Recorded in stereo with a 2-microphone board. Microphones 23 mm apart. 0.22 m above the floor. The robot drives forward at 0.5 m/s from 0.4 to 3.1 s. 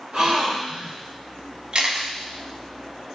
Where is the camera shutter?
50° right (ahead or behind), 0.6 m.